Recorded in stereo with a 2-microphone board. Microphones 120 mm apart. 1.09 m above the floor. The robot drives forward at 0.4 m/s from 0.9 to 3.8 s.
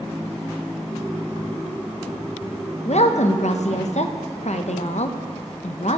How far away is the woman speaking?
About 0.7 m.